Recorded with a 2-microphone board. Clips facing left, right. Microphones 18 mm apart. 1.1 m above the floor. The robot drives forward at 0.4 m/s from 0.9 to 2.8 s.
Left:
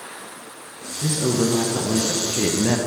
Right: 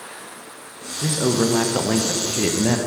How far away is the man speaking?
About 0.7 m.